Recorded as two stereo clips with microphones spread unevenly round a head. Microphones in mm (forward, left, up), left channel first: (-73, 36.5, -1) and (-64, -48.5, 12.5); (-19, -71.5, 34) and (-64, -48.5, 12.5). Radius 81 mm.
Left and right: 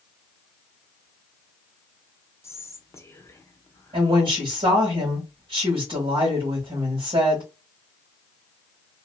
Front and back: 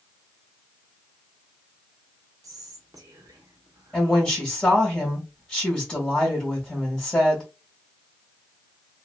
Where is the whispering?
155° left, 1.0 m.